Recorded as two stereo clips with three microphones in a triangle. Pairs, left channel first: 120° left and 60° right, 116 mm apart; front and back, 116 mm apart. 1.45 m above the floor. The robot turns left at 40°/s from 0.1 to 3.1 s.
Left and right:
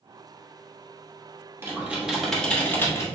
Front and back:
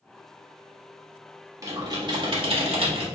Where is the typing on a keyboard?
125° right, 1.3 m; by 3.0 s straight behind, 1.3 m.